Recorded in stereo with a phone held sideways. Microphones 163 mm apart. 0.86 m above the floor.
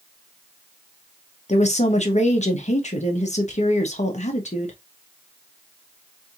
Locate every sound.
1.5 s a woman speaking: 45° left (ahead or behind), 1.0 m